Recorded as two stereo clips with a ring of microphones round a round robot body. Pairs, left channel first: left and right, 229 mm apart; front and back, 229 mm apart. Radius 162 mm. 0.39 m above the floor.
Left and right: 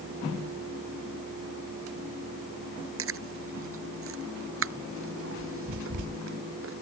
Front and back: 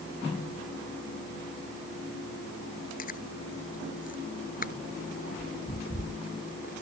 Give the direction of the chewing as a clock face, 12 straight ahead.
2 o'clock.